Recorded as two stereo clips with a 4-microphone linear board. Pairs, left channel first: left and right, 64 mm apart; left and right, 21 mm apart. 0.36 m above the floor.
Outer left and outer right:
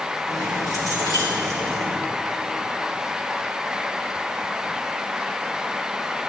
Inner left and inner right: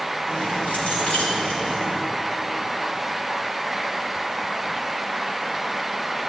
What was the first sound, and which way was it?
Keys jangling, 80° left.